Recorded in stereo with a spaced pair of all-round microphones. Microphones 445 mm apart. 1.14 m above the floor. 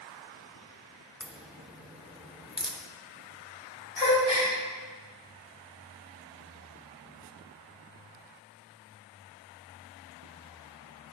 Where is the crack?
Centre (ahead or behind), 0.8 m.